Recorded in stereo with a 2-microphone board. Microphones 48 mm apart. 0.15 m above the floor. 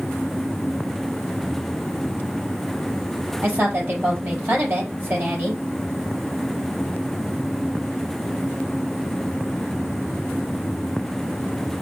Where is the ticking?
I don't hear ticking.